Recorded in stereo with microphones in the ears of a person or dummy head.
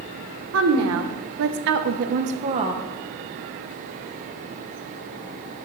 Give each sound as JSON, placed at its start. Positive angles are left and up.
{"t": 0.5, "sound": "a woman speaking", "side_deg": -75, "distance_m": 1.3}